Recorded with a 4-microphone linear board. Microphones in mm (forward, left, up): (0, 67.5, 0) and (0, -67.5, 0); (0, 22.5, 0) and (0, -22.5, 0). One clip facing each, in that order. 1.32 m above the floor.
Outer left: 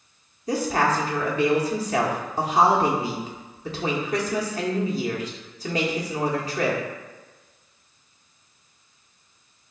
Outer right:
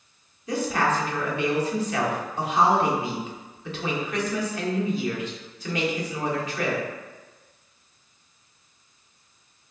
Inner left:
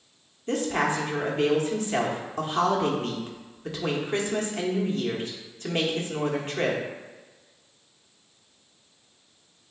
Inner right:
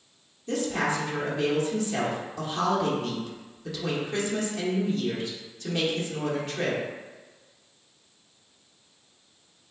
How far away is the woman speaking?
About 1.2 m.